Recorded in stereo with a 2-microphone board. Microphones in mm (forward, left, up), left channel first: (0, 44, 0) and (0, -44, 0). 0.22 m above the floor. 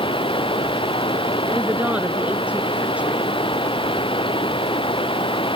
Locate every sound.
0.0 s running water: 85° left
1.5 s a woman speaking: 15° right (ahead or behind)